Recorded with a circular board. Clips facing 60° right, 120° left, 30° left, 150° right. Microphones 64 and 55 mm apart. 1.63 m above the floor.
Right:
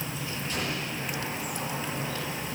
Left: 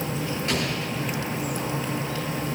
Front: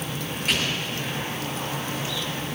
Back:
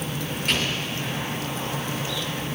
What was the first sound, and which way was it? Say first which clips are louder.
An explosion: left 3 dB, even; 120° left.